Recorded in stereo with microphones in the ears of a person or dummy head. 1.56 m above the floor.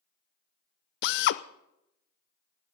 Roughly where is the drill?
Left.